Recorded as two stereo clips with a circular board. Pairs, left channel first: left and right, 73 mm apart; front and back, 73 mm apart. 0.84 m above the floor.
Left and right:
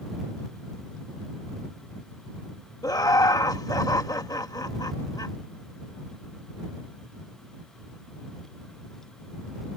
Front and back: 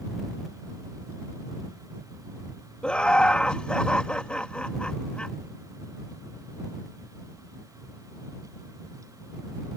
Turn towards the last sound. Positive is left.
turn(degrees=75)